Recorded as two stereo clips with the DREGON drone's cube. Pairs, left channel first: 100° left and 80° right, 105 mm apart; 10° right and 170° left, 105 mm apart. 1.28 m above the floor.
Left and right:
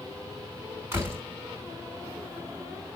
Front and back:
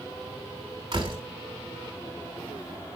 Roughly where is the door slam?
Behind right.